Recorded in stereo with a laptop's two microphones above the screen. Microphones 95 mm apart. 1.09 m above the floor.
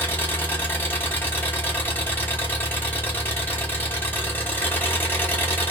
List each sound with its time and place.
0.0 s an engine running: 20° left (ahead or behind), 0.8 m